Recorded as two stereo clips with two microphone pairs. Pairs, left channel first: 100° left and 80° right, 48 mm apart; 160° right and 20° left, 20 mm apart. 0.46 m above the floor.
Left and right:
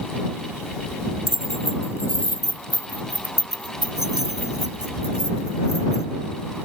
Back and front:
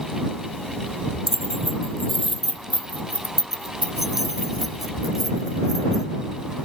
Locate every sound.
1.3 s keys jangling: 90° left